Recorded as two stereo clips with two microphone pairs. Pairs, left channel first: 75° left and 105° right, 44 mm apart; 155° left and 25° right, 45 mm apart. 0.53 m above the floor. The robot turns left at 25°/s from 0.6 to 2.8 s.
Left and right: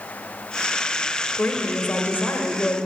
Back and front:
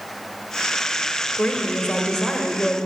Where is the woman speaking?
100° left, 1.4 m; by 2.8 s 65° left, 1.4 m.